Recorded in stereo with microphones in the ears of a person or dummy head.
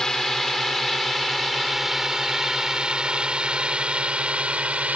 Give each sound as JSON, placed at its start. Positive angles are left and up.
{"t": 0.0, "sound": "a drone", "side_deg": 5}